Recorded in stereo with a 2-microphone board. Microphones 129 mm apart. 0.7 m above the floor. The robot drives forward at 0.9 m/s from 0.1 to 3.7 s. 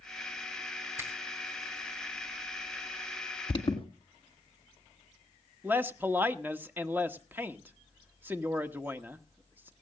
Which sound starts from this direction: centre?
A man speaking, at 5.6 s.